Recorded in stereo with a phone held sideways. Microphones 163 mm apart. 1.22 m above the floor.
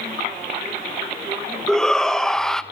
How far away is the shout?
About 0.9 m.